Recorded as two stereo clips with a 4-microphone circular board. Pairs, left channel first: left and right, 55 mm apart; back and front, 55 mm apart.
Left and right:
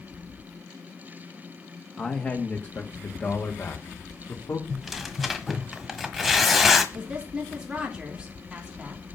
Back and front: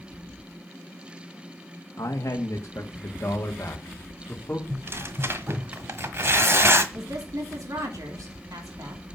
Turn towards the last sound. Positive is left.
turn(degrees=-15)